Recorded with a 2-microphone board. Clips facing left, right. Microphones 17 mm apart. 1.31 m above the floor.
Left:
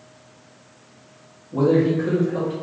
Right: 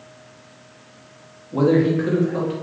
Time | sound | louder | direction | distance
1.5 | a man speaking | right 1 dB | 35° right (ahead or behind) | 0.7 m